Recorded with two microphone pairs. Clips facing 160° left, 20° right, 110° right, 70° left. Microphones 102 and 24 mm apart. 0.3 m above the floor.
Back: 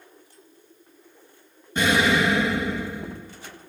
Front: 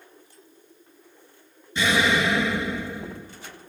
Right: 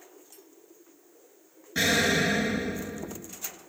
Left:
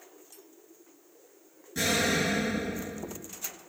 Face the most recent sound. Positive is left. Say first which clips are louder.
# back 2 dB, right 3 dB
turn(degrees=-165)